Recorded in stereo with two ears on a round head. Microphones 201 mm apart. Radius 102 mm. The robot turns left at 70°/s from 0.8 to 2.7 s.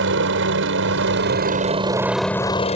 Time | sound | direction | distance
0.0 | a helicopter | 60° right (ahead or behind) | ?